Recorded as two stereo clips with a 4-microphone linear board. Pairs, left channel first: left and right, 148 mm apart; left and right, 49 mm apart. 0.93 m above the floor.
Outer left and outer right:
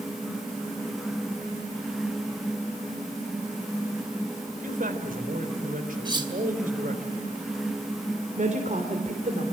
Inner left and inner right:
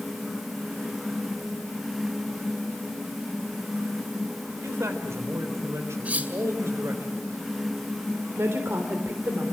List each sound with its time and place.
4.6 s a man speaking: 70° right (ahead or behind), 3.5 m
6.0 s cutlery clinking: 30° right (ahead or behind), 2.5 m
8.4 s a woman speaking: 60° right (ahead or behind), 3.5 m